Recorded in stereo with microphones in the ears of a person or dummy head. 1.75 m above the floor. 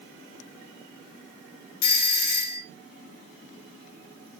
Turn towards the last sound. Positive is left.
turn(degrees=50)  # may be behind; listen again after turning